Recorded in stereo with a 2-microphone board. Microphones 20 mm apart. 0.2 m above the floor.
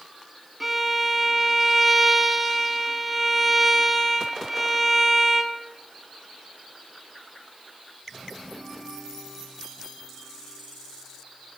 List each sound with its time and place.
0.6 s a violin: centre (ahead or behind), 0.6 m